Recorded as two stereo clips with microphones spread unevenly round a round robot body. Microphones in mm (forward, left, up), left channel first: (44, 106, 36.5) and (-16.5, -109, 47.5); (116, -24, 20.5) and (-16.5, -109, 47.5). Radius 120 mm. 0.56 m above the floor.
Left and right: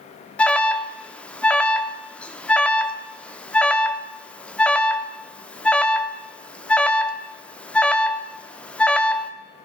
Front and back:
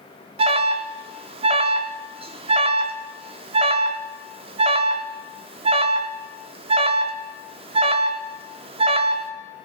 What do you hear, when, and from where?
0.4 s an alarm: 155° left, 0.6 m